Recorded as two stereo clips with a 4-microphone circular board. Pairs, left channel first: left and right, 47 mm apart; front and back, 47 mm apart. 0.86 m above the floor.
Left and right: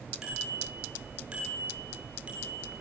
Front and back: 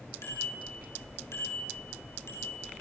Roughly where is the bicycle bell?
Ahead.